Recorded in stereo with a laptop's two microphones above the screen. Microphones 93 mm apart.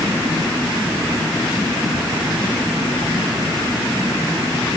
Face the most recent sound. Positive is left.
No sound to turn to.